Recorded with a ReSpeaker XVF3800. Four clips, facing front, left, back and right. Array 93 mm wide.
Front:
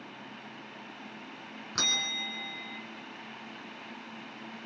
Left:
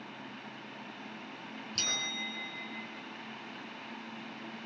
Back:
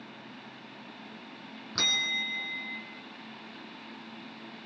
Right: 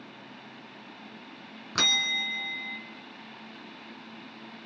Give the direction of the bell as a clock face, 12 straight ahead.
3 o'clock.